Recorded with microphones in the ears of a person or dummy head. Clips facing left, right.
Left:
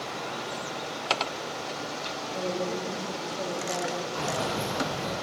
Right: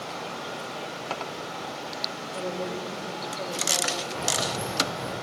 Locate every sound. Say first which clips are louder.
2.3 s a woman speaking: left 1 dB; 5° right (ahead or behind), 4 m; by 4.0 s 10° left (ahead or behind), 3.5 m
4.2 s keys jangling: left 1 dB; 30° right (ahead or behind), 10 m